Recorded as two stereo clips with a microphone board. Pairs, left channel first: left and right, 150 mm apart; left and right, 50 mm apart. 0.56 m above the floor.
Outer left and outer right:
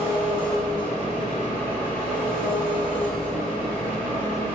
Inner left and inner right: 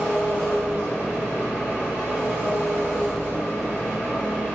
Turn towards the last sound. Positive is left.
turn(degrees=-35)  # may be behind; listen again after turning